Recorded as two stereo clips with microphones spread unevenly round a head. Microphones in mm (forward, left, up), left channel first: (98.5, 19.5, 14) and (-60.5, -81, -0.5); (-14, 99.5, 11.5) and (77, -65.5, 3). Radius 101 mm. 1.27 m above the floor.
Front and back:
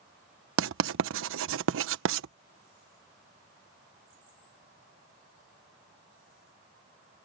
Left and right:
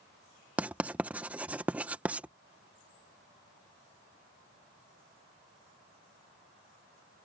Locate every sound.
0.6 s writing: 145° right